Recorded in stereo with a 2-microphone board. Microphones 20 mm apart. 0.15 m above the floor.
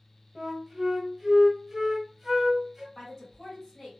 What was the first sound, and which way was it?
A flute, 25° right (ahead or behind).